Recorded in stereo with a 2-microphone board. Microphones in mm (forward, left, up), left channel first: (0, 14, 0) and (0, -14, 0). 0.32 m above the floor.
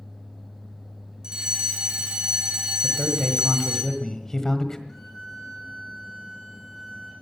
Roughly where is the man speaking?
Centre.